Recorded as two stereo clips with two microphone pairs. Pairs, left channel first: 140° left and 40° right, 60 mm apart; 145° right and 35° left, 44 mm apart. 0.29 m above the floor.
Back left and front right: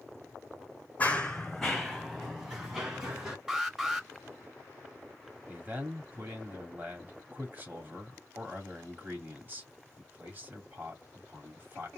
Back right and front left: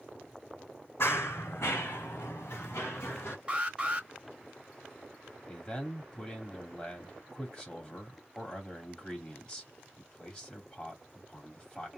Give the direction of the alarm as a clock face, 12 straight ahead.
11 o'clock.